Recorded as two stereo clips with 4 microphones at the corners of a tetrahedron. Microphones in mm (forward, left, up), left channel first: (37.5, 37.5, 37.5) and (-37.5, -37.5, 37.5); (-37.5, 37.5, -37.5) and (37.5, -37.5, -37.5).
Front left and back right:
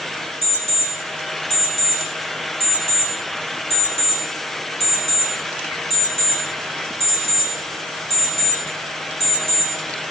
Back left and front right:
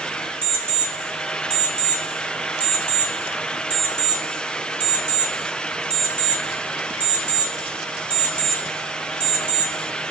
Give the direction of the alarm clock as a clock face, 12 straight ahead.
11 o'clock.